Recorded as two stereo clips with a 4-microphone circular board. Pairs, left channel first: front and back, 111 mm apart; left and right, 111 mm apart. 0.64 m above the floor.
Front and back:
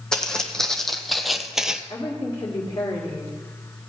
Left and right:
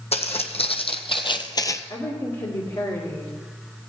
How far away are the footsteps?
About 1.6 m.